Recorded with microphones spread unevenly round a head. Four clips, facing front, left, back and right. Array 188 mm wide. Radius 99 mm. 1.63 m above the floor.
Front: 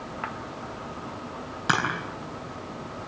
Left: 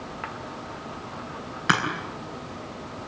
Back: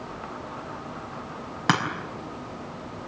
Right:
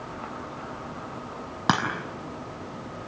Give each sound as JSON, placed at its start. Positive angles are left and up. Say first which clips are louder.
{"t": 1.7, "sound": "a crack", "louder": "even, back 1 dB", "azimuth_deg": -130, "distance_m": 5.5}